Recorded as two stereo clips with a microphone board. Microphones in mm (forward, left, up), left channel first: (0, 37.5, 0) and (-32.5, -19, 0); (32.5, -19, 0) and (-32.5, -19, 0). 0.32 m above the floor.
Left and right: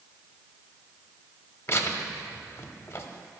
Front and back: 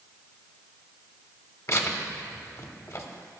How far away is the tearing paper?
About 0.7 m.